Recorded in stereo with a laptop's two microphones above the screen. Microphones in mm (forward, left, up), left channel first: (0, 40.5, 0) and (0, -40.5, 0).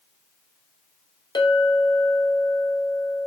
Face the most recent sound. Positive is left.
turn(degrees=70)  # may be behind; listen again after turning